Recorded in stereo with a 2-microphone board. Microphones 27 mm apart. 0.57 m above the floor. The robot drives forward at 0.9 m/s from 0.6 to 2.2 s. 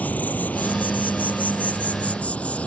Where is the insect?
70° left (ahead or behind); by 2.7 s 50° left (ahead or behind).